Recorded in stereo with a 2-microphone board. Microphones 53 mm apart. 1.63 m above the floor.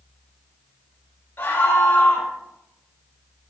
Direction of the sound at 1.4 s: 35° left (ahead or behind).